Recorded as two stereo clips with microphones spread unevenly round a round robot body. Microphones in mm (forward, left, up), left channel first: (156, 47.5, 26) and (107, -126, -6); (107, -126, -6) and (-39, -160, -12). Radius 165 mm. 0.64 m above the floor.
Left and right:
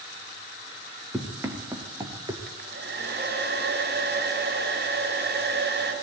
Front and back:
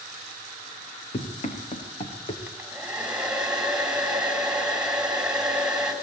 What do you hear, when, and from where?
1.1 s running footsteps: 30° right, 5 m; by 2.4 s 35° right, 5 m
2.5 s a hair dryer: 85° right, 5.5 m